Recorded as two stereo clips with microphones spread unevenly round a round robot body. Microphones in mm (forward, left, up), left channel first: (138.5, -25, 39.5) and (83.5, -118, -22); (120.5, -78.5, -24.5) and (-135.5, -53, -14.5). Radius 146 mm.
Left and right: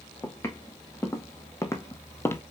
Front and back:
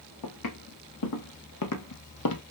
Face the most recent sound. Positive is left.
turn(degrees=5)